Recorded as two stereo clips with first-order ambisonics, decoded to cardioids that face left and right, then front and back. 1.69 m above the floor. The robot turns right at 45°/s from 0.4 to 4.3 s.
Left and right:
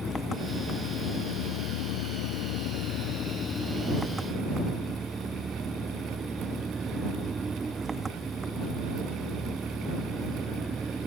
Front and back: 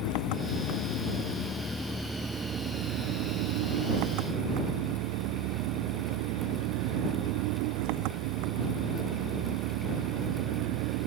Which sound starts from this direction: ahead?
An engine running, at 0.0 s.